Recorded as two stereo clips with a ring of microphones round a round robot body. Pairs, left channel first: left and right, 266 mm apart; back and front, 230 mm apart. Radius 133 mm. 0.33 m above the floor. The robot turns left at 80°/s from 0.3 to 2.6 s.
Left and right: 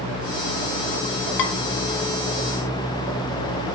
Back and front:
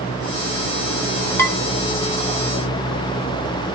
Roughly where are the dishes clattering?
Left.